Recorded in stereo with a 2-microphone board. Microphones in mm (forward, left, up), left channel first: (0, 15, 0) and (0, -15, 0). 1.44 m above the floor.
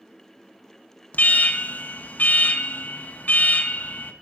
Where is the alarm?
65° left (ahead or behind), 1.3 m.